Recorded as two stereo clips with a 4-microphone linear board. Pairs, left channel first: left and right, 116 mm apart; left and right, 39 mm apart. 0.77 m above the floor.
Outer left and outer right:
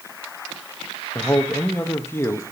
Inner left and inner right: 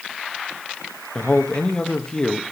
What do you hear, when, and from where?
1.1 s a man speaking: 20° left (ahead or behind), 0.9 m